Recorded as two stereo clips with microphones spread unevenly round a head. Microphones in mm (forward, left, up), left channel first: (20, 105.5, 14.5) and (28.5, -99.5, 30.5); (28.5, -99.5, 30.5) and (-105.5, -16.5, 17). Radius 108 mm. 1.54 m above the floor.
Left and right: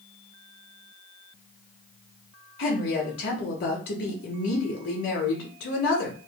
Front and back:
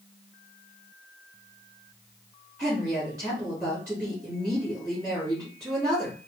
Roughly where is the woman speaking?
Ahead left.